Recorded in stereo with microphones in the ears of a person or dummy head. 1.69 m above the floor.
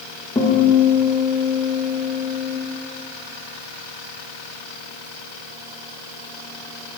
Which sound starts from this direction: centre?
A guitar, at 0.3 s.